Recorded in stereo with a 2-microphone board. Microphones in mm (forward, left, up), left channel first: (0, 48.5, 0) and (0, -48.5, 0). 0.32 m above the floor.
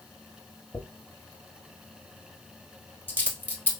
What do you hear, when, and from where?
0.7 s a dropped coin: 20° left (ahead or behind), 1.4 m